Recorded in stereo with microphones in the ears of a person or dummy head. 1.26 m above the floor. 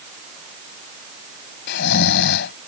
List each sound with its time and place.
1.7 s snoring: 60° left (ahead or behind)